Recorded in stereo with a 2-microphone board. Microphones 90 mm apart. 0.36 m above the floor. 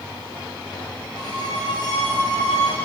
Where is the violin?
50° left (ahead or behind), 7.5 m.